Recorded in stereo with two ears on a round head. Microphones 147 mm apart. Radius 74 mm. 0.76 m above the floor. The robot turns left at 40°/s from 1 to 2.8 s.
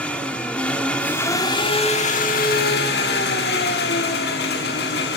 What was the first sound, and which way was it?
An engine running, 170° left.